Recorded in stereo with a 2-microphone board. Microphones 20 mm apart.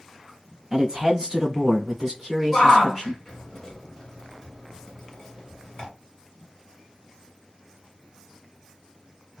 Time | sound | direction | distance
0.7 | a man speaking | 20° right (ahead or behind) | 1.6 m
2.5 | a shout | 15° left (ahead or behind) | 1.3 m